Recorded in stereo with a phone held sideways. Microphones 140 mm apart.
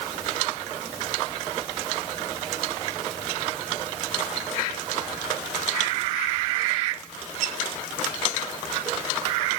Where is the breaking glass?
I don't hear breaking glass.